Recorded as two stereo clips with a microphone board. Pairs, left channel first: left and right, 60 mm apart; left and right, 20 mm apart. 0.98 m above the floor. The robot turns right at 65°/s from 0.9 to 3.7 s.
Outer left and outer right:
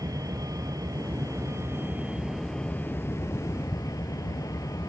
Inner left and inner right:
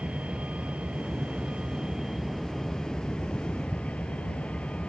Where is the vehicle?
100° right; by 4.9 s 80° left.